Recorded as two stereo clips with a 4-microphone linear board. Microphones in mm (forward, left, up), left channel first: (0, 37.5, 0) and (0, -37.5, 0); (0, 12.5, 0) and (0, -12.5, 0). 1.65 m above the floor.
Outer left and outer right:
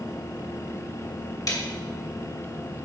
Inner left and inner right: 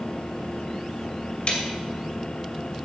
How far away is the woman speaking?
No woman speaking in this recording.